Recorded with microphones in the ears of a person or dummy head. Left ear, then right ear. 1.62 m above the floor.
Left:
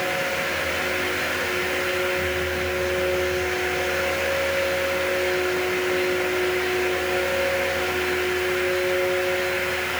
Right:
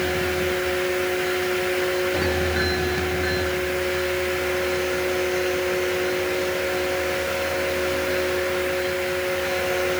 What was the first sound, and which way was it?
Only background noise.